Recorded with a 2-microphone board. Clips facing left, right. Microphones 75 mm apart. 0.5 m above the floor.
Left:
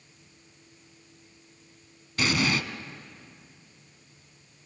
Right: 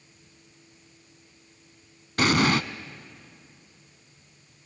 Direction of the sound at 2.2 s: 50° right (ahead or behind).